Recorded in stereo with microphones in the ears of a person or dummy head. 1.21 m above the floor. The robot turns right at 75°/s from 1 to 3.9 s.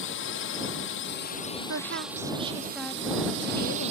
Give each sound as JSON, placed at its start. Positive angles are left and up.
{"t": 0.0, "sound": "a drone", "azimuth_deg": 105}
{"t": 1.7, "sound": "a woman speaking", "azimuth_deg": -85}